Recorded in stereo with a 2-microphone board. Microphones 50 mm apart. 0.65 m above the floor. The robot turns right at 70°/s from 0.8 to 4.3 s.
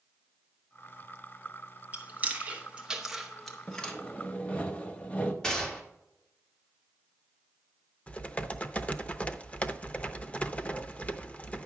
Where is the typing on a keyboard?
25° left (ahead or behind), 0.6 m.